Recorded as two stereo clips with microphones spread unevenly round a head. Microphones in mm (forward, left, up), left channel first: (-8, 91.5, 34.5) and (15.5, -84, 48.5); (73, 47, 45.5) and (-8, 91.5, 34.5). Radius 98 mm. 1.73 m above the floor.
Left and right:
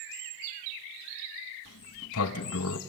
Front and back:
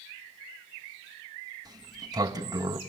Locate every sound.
1.6 s a sliding door: 100° left, 1.7 m